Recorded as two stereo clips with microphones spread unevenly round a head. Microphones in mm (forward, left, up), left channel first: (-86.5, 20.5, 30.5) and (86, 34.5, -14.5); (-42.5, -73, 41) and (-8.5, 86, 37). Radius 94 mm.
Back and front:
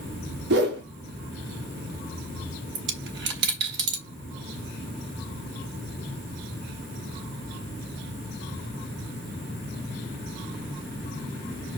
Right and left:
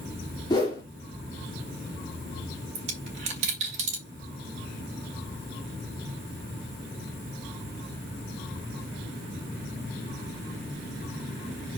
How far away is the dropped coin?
About 3 m.